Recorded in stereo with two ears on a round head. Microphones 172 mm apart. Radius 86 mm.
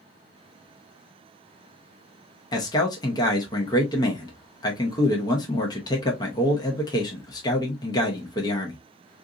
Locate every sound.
2.5 s a man speaking: 20° left (ahead or behind), 0.7 m